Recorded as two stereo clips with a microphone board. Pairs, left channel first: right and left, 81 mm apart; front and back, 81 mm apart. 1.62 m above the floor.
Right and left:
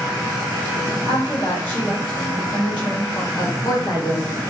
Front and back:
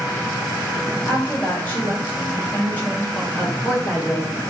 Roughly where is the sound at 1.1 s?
Right.